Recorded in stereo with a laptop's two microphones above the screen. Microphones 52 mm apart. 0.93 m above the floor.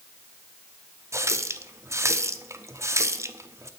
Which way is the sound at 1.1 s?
60° right (ahead or behind).